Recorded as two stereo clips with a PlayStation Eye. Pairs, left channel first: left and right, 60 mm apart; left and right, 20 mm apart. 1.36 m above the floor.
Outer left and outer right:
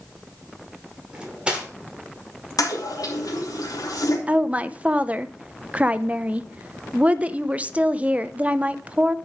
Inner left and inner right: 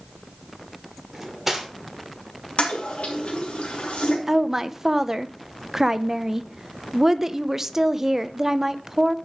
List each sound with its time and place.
1.1 s cutlery clinking: 15° right (ahead or behind), 2.5 m
2.6 s a toilet flushing: 85° left, 3 m
4.3 s a woman speaking: 20° right (ahead or behind), 0.7 m